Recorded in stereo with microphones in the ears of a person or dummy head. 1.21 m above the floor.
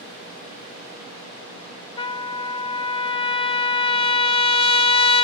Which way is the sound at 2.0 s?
20° left (ahead or behind).